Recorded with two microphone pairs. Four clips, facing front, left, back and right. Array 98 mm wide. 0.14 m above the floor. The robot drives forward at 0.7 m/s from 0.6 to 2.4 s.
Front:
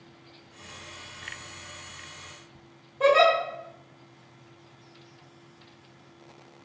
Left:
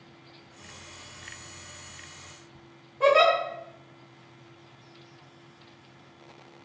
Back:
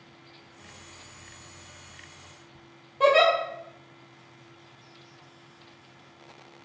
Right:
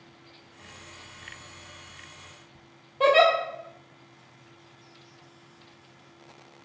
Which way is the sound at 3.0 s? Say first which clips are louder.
Right 1 dB, even; 130° right.